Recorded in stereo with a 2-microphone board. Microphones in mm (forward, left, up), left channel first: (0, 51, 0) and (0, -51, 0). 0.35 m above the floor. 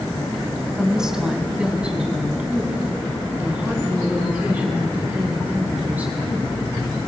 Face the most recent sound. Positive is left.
turn(degrees=-15)  # may be behind; listen again after turning